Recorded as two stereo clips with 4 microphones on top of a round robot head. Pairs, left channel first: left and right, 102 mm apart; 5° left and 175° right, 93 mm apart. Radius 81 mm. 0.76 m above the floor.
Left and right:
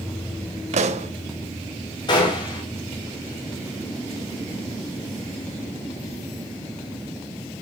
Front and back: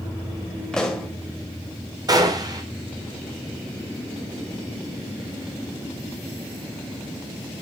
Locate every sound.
0.7 s a pop: 80° right, 1.4 m
2.1 s a gunshot: 140° left, 3.5 m